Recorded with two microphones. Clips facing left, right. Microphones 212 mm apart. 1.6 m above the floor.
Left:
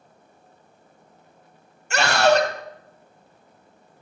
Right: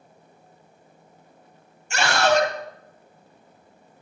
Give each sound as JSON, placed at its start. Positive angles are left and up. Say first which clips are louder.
{"t": 1.9, "sound": "a scream", "louder": "left 2 dB", "side_deg": 80, "distance_m": 2.5}